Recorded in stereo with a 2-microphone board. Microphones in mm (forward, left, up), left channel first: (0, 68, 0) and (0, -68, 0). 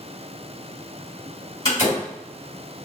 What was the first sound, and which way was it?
A door slam, 30° left (ahead or behind).